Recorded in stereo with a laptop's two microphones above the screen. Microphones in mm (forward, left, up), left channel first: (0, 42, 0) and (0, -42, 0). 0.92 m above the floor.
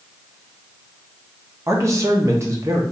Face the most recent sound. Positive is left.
turn(degrees=-35)  # may be behind; listen again after turning